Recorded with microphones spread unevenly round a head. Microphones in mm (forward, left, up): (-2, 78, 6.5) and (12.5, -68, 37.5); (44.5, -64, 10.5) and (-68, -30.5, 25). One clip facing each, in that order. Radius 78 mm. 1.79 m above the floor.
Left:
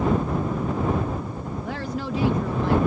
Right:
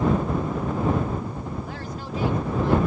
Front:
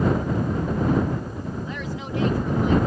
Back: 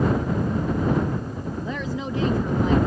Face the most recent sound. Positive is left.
turn(degrees=130)